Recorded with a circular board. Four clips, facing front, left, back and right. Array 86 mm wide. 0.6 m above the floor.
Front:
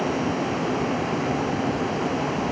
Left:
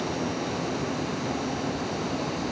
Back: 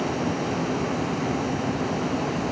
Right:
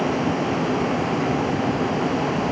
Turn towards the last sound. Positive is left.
No sound to turn to.